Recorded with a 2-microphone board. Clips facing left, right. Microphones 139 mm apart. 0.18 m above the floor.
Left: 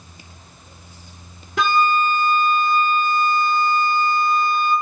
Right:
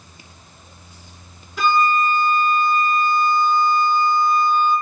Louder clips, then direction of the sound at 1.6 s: Even; 70° left (ahead or behind).